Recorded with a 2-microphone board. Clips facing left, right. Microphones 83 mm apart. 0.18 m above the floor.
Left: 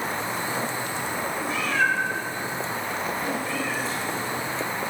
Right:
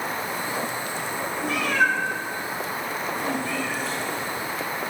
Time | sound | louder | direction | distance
1.4 | a cat meowing | right 2 dB | 65° right (ahead or behind) | 3 m